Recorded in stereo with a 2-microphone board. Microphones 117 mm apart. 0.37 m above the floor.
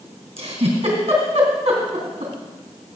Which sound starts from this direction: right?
A giggle, at 0.4 s.